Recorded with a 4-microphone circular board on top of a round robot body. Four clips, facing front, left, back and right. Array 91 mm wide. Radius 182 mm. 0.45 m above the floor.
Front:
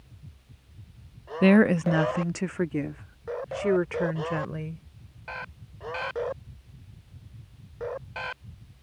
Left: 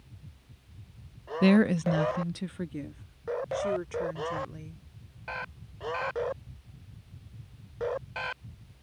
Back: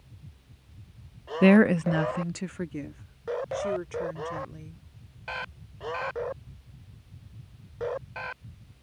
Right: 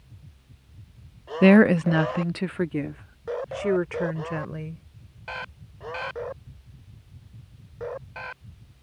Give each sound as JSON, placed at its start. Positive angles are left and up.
{"t": 1.4, "sound": "a woman speaking", "azimuth_deg": -105}